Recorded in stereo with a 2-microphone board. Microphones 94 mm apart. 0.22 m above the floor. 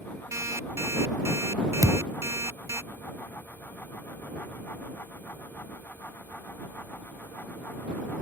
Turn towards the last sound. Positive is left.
turn(degrees=-35)  # may be behind; listen again after turning